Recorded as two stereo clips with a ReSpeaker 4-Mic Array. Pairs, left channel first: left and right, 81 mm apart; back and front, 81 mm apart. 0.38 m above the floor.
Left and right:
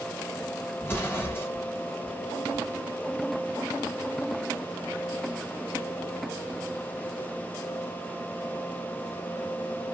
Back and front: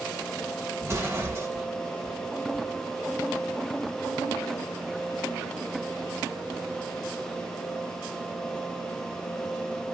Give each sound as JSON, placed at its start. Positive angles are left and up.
{"t": 0.8, "sound": "an explosion", "azimuth_deg": 40, "distance_m": 1.0}